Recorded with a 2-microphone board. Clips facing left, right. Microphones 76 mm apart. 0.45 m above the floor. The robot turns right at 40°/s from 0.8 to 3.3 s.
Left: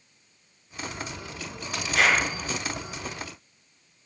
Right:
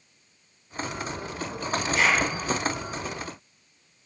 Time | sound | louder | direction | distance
1.9 | a clap | left 1 dB | 80° left | 7 m